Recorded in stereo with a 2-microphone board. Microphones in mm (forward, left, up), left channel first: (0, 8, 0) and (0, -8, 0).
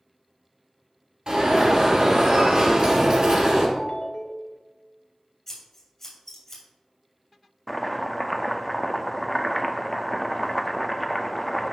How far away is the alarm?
About 3 m.